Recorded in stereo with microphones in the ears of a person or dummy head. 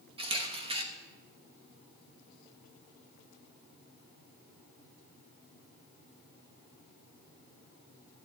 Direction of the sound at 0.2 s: 35° right (ahead or behind).